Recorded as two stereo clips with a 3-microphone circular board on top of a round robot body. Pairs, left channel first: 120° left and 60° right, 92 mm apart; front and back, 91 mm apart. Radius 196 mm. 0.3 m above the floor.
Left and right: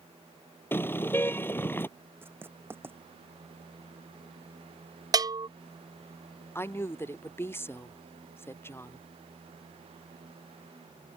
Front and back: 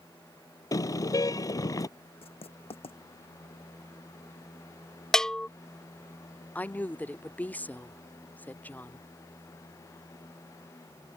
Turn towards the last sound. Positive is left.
turn(degrees=65)